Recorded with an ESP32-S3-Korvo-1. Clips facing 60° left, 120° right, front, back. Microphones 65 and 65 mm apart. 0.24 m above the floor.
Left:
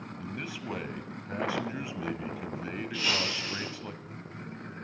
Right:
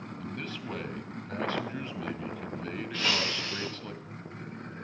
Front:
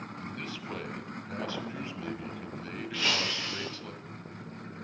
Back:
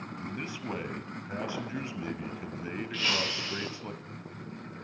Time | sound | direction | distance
0.2 | a man speaking | 130° left | 1.2 m
2.9 | breaking glass | 75° right | 8.5 m